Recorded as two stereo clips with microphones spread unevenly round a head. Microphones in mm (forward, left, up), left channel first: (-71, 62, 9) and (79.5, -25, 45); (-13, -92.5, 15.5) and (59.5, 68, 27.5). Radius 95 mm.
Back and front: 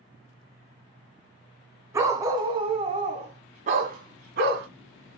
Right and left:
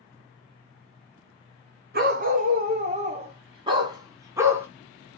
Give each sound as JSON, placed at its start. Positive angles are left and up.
{"t": 1.9, "sound": "a dog barking", "azimuth_deg": 40, "distance_m": 1.9}